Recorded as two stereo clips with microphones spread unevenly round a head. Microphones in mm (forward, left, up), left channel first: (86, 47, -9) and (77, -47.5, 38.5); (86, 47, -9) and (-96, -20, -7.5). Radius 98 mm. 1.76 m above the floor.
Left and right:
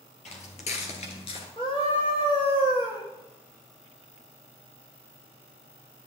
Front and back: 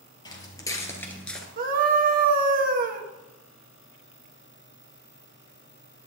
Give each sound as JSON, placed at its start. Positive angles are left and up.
{"t": 0.2, "sound": "footsteps", "azimuth_deg": 85, "distance_m": 2.5}
{"t": 1.6, "sound": "a scream", "azimuth_deg": 155, "distance_m": 1.4}